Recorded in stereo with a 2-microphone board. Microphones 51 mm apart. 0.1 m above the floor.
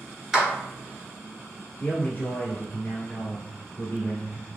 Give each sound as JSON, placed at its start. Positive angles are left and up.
{"t": 0.3, "sound": "a clap", "side_deg": -15, "distance_m": 1.0}
{"t": 1.8, "sound": "a man speaking", "side_deg": 30, "distance_m": 1.3}